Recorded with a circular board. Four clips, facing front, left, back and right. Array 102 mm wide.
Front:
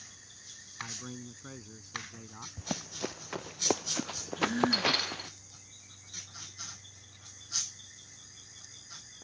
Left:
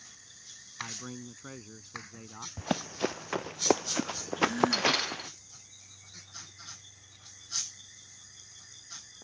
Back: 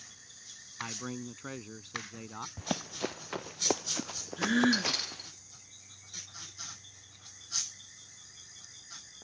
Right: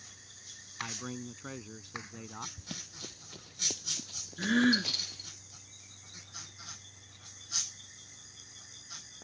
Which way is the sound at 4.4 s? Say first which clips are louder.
Even, back 2 dB; 130° right.